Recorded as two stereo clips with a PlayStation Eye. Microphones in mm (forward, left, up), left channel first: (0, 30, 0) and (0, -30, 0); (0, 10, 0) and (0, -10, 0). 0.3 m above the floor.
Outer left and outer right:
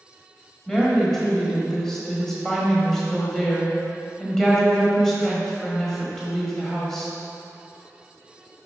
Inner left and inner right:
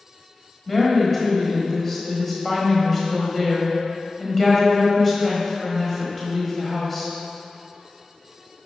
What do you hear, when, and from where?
0.7 s a woman speaking: 10° left (ahead or behind), 1.4 m